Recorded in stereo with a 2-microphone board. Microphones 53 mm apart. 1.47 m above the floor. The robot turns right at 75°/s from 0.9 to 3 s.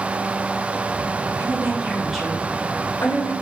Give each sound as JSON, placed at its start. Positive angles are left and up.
{"t": 1.4, "sound": "a woman speaking", "azimuth_deg": -60, "distance_m": 0.9}